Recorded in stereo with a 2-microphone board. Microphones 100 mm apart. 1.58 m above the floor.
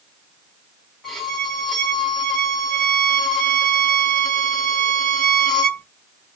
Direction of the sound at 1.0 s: 5° left (ahead or behind).